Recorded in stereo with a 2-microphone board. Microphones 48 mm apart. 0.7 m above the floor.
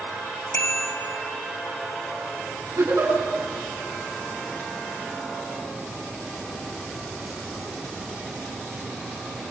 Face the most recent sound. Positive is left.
turn(degrees=-80)